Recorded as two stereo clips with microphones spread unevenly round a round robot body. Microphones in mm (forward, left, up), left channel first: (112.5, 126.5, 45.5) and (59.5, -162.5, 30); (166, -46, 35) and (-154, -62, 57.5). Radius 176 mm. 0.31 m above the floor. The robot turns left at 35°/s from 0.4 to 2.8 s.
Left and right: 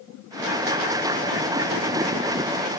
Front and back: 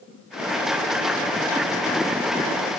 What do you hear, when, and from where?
Only background noise.